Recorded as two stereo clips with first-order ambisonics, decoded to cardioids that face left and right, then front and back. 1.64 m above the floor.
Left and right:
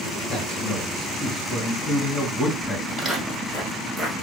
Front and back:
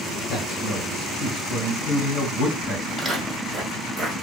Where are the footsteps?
100° right, 1.7 m; by 4.1 s 155° left, 1.6 m.